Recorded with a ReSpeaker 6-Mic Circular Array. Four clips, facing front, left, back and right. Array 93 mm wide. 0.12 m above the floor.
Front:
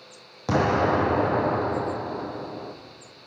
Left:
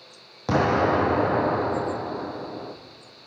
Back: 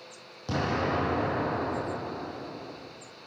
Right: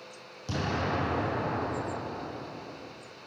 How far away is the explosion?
About 3 m.